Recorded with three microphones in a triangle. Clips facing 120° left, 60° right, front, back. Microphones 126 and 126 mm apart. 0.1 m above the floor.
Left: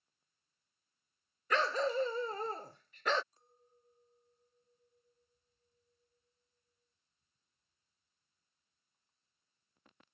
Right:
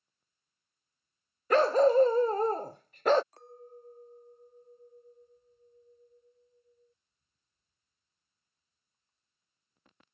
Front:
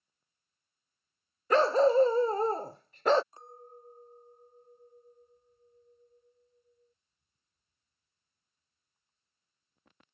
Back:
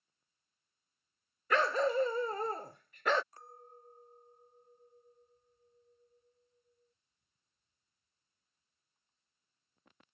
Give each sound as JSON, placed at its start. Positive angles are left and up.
{"t": 1.5, "sound": "a dog barking", "azimuth_deg": -45}
{"t": 3.3, "sound": "a clink", "azimuth_deg": -65}